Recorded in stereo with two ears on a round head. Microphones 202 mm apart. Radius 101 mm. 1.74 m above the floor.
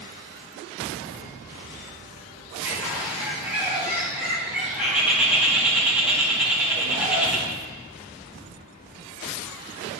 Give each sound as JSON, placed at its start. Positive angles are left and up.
{"t": 2.6, "sound": "a bird", "side_deg": -5, "distance_m": 2.5}